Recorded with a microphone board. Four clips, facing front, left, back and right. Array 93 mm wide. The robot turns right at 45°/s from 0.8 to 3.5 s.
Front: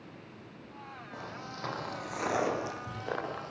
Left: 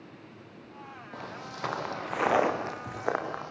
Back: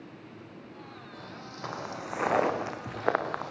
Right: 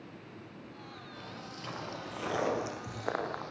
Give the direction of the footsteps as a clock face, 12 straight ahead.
10 o'clock.